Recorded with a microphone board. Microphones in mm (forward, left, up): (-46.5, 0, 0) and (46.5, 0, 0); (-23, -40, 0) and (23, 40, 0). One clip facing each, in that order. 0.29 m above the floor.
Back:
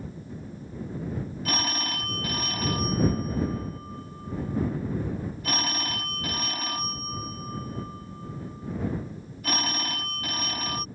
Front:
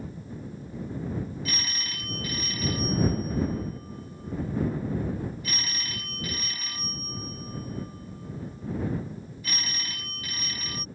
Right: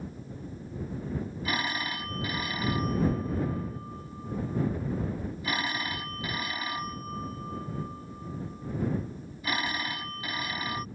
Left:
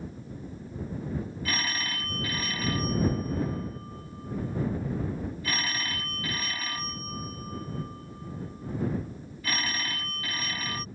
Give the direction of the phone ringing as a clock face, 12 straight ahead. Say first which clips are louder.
Back 7 dB, right 3 dB; 6 o'clock.